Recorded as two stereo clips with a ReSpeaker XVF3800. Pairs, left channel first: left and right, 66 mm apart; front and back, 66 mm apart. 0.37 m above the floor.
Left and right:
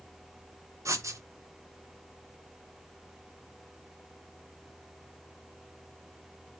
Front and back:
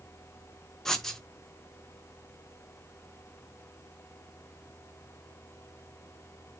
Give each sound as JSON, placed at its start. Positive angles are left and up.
{"t": 0.8, "sound": "writing", "azimuth_deg": -80, "distance_m": 0.7}